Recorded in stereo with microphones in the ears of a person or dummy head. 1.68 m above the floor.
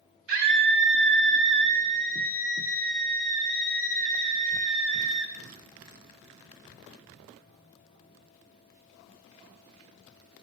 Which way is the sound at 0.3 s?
55° right (ahead or behind).